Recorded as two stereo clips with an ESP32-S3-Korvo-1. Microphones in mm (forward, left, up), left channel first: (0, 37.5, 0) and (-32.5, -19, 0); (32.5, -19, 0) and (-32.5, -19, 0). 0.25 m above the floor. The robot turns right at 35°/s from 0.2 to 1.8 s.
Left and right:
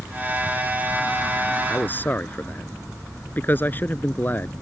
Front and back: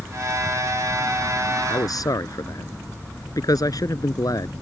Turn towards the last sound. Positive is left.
turn(degrees=0)